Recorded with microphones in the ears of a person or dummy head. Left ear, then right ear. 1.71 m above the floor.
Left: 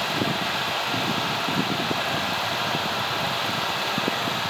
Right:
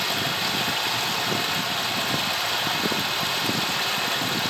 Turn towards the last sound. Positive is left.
turn(degrees=-15)  # may be behind; listen again after turning